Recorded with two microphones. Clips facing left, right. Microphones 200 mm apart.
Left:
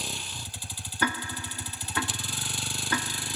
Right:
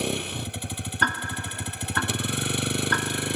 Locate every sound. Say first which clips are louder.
0.0 s a vehicle: right 12 dB; 65° right (ahead or behind)
1.0 s ticking: left 3 dB; 5° left (ahead or behind)